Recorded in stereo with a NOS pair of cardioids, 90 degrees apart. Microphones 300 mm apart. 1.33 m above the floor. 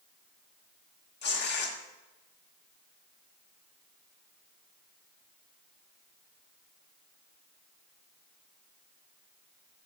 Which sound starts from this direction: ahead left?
Tearing paper, at 1.2 s.